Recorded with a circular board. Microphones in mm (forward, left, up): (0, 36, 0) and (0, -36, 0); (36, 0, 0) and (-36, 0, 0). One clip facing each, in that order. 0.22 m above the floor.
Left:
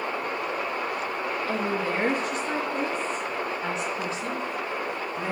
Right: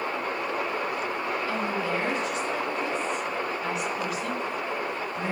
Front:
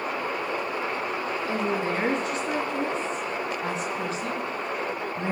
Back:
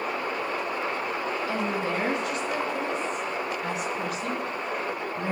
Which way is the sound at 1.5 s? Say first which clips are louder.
Left 3 dB, front 3 dB; 55° left.